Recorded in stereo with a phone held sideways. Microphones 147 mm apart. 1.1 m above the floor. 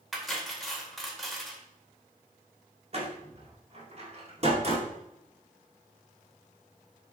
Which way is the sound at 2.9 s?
45° right (ahead or behind).